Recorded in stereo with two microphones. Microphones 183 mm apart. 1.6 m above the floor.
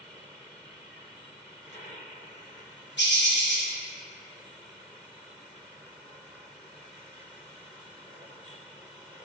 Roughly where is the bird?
Left.